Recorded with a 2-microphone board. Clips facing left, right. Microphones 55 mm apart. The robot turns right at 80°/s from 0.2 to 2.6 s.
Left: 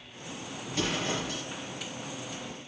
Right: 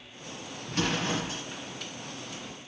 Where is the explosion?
90° right, 2 m; by 1.4 s 30° right, 2 m.